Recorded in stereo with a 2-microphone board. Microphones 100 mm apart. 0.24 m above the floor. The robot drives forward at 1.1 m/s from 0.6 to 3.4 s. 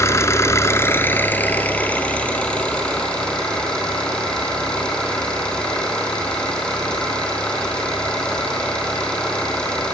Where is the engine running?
30° left (ahead or behind), 1.4 m; by 9.9 s 10° left (ahead or behind), 4 m.